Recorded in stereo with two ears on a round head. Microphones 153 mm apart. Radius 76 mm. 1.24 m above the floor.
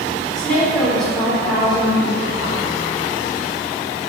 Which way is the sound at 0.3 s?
5° left (ahead or behind).